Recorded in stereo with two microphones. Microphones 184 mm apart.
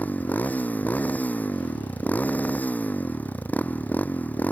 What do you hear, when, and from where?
0.0 s a motorcycle: 10° left (ahead or behind)